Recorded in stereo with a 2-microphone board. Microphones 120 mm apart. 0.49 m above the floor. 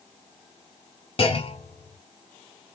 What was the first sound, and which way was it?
A clunk, 50° left (ahead or behind).